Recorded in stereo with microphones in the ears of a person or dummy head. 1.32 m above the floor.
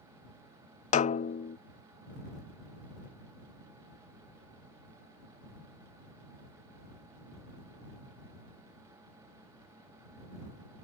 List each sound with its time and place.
0.9 s a snare drum: 40° left (ahead or behind)